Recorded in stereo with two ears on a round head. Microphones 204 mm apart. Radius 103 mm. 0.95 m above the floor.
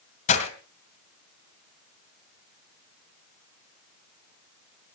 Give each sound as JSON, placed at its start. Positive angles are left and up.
{"t": 0.3, "sound": "breaking glass", "side_deg": 30, "distance_m": 2.0}